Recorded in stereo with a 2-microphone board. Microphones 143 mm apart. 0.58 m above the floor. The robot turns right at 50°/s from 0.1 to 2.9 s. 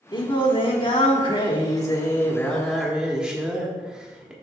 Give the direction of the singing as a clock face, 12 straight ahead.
10 o'clock.